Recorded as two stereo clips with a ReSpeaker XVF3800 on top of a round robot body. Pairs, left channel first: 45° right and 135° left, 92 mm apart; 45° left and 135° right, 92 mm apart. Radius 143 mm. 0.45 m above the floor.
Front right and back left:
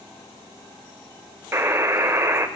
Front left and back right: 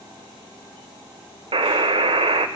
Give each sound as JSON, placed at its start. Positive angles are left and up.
{"t": 1.5, "sound": "a buzzer", "azimuth_deg": -160, "distance_m": 0.8}